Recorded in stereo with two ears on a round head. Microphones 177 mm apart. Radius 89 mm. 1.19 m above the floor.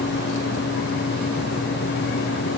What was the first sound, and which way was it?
Only background noise.